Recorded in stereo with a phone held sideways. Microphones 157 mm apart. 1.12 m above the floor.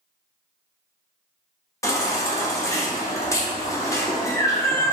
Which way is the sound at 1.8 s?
20° left (ahead or behind).